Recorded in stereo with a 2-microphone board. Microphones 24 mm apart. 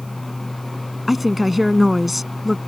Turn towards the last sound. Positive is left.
turn(degrees=-5)  # may be behind; listen again after turning